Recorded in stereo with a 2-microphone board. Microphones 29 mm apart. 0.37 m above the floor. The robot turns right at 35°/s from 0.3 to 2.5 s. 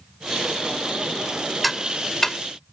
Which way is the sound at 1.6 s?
Centre (ahead or behind).